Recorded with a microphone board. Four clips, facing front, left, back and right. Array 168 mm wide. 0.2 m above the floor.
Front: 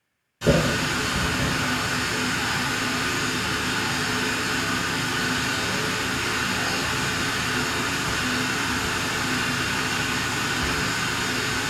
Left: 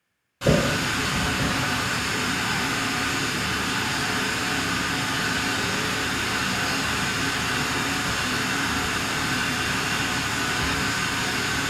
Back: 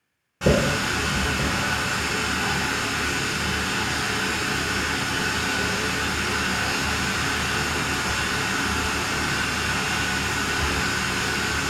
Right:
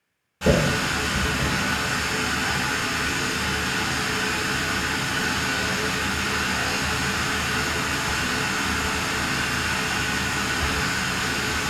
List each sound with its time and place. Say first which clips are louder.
0.4 s a running tap: right 1 dB, even; 175° right, 1.3 m